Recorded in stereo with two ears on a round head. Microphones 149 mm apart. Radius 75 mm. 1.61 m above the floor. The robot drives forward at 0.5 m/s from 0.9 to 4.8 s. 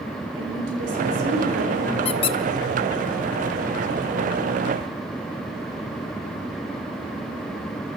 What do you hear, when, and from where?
0.3 s a woman speaking: 80° right, 5 m; by 1.9 s 85° right, 4.5 m
2.0 s a squeak: 35° left (ahead or behind), 0.8 m; by 2.4 s 30° left (ahead or behind), 0.9 m